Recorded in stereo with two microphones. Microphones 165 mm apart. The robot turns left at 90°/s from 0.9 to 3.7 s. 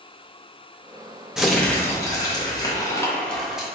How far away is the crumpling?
About 0.8 m.